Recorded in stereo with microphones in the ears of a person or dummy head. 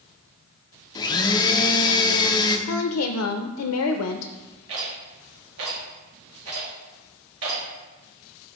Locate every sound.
0.9 s a blender: 20° left (ahead or behind), 0.6 m
2.7 s a woman speaking: 85° left, 0.5 m
4.7 s a rattle: 75° right (ahead or behind), 2 m